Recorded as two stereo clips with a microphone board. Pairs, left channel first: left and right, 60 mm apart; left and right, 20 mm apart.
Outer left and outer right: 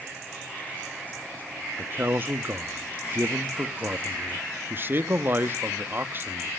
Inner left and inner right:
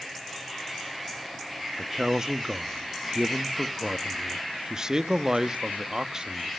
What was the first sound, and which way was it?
A man speaking, 35° right (ahead or behind).